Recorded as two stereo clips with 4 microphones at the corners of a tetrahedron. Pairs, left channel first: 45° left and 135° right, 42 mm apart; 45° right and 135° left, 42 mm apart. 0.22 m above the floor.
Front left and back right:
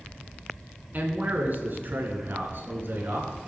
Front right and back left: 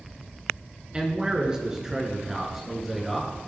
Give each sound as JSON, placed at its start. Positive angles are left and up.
{"t": 0.9, "sound": "a man speaking", "azimuth_deg": -165, "distance_m": 3.0}